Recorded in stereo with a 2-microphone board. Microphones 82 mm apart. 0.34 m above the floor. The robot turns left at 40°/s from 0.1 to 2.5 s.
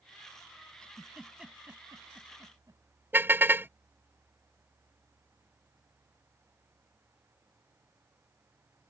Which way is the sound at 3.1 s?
25° right (ahead or behind).